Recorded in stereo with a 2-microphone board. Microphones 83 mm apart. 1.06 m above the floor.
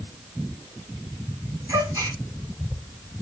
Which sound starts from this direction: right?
A gasp, at 1.7 s.